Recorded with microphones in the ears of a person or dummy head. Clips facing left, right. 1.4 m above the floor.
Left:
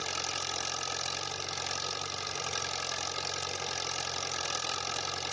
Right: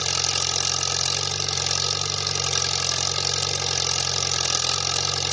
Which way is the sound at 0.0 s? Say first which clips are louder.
Right 7 dB; 65° right (ahead or behind).